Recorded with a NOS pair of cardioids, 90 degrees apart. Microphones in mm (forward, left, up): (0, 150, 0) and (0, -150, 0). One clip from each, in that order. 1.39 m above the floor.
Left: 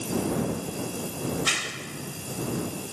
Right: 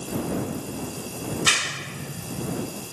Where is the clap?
40° right.